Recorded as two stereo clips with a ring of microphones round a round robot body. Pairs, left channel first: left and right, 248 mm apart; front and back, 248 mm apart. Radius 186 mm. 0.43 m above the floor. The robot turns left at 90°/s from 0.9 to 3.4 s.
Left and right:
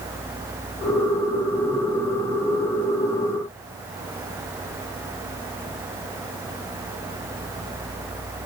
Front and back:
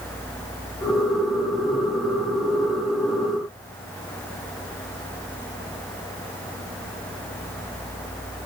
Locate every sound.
Only background noise.